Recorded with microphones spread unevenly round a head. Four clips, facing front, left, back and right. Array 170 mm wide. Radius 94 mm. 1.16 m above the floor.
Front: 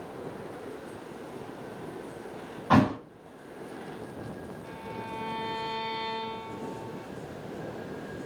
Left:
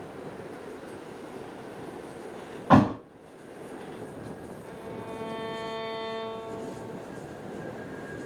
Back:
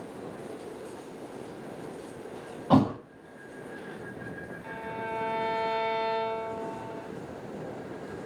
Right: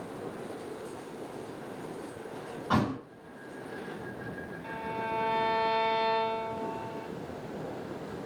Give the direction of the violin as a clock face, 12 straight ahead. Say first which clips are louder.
Right 6 dB, back 5 dB; 4 o'clock.